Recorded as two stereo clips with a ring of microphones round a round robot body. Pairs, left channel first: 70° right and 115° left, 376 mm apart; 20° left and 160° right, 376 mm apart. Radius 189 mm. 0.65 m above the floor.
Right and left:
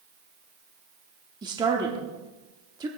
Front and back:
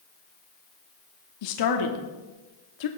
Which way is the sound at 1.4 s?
35° left.